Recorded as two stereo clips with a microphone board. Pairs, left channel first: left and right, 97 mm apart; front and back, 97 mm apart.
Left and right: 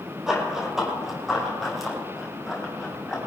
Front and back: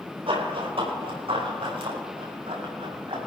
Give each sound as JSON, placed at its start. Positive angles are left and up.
{"t": 0.3, "sound": "running footsteps", "azimuth_deg": -175, "distance_m": 4.5}